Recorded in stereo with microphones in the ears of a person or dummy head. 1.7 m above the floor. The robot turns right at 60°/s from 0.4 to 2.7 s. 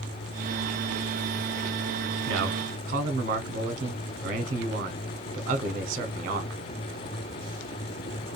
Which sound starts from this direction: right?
A man speaking, at 2.3 s.